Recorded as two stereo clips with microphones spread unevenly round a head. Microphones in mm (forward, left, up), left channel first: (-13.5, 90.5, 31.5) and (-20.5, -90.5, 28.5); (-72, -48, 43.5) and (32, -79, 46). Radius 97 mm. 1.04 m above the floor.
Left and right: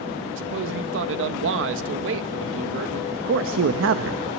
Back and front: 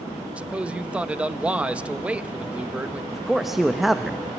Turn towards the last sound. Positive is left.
turn(degrees=-105)